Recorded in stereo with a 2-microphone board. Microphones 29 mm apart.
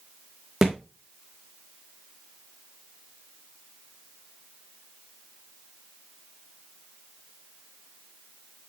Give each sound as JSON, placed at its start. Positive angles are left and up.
{"t": 0.6, "sound": "a thud", "side_deg": -15, "distance_m": 2.0}